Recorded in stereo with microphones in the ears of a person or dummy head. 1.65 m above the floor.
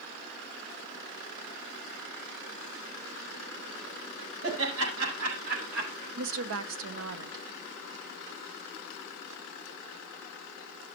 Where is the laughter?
85° right, 5 m; by 6.1 s 90° right, 4.5 m.